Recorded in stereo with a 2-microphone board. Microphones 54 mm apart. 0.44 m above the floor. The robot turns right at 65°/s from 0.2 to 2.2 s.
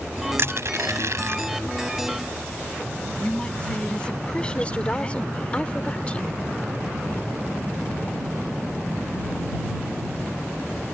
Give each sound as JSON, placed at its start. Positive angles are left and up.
{"t": 0.4, "sound": "crushing", "side_deg": -55}
{"t": 3.2, "sound": "a woman speaking", "side_deg": 20}
{"t": 4.5, "sound": "a woman speaking", "side_deg": 25}